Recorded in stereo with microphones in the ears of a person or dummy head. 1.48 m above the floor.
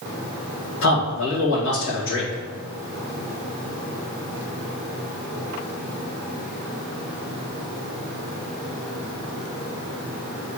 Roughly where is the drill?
I don't hear a drill.